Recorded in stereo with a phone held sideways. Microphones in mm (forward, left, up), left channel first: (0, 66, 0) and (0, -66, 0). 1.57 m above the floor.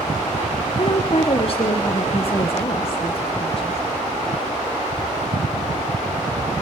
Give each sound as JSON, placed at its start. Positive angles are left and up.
{"t": 0.8, "sound": "a woman speaking", "side_deg": 45, "distance_m": 1.1}